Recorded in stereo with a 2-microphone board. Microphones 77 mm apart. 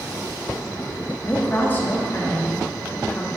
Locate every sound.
1.2 s a woman speaking: 25° left (ahead or behind), 1.2 m